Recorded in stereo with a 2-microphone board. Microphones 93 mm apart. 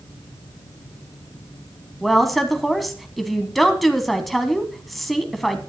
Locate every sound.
2.0 s a woman speaking: centre (ahead or behind), 1.1 m